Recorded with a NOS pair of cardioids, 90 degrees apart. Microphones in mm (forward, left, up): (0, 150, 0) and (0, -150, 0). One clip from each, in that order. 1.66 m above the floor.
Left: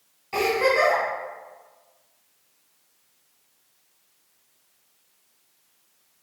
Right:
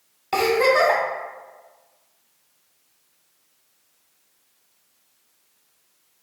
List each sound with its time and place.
0.3 s a giggle: 65° right, 1.2 m